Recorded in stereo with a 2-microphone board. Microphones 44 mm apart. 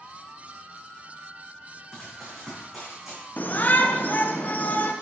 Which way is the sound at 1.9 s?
5° left (ahead or behind).